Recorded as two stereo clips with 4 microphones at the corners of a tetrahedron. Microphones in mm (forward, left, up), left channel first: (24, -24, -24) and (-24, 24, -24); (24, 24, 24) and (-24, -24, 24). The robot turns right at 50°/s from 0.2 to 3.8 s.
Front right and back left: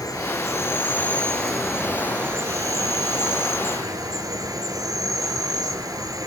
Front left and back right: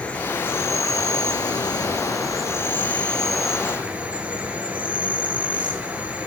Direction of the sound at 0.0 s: 25° right.